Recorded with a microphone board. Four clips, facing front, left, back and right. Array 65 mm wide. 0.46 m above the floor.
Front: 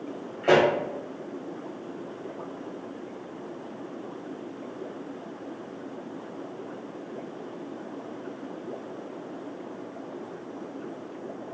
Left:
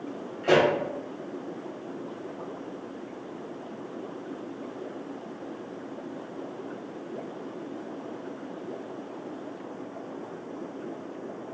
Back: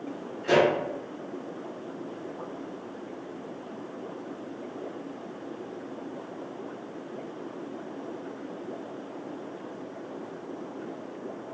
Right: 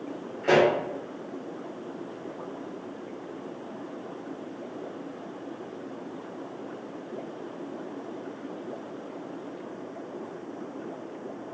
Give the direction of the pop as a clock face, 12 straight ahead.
12 o'clock.